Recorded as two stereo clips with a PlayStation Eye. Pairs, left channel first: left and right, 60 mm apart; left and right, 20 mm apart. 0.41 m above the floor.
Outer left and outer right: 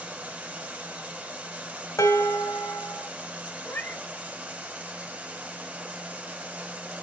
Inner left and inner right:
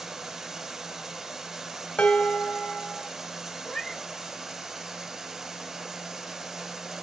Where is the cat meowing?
35° left (ahead or behind), 0.7 m.